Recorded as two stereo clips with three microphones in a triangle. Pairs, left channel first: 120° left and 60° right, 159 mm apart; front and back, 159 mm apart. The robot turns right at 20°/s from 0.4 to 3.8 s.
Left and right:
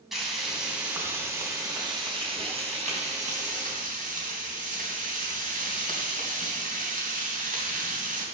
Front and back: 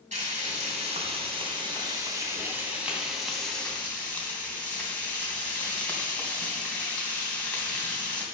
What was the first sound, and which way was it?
Frying, 150° right.